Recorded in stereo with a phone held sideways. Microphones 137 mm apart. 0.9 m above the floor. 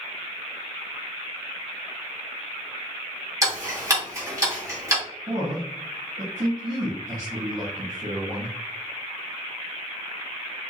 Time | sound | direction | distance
3.4 | ticking | 20° right (ahead or behind) | 1.6 m
5.3 | a man speaking | 60° right (ahead or behind) | 1.5 m